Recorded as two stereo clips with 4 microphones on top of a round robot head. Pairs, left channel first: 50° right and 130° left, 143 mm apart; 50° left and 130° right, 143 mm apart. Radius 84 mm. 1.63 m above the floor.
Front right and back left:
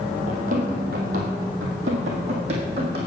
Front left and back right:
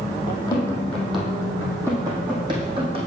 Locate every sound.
0.3 s running footsteps: 100° left, 2 m; by 3.0 s straight behind, 3 m